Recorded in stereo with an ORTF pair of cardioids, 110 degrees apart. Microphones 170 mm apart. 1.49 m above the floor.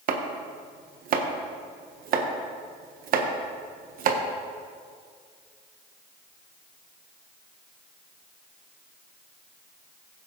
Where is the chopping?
55° right, 1.3 m.